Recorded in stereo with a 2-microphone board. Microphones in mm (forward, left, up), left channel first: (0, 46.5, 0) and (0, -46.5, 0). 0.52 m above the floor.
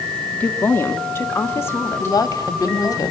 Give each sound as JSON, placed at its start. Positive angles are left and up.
{"t": 0.4, "sound": "a woman speaking", "side_deg": 20, "distance_m": 1.1}
{"t": 2.0, "sound": "a woman speaking", "side_deg": 45, "distance_m": 1.2}